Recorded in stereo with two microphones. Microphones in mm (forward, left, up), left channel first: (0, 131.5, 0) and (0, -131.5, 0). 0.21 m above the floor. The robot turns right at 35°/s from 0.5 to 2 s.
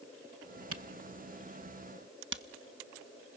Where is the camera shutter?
65° right (ahead or behind), 0.6 m; by 3.4 s 50° right (ahead or behind), 0.6 m.